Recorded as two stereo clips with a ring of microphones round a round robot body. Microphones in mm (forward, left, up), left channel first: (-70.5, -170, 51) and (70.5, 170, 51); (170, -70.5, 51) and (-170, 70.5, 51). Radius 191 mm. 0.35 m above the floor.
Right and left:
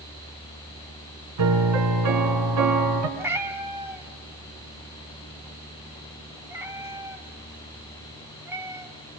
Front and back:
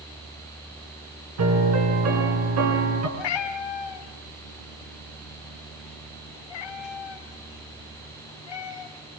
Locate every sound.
1.4 s a piano: 110° left, 5 m
3.2 s a cat meowing: 15° right, 2 m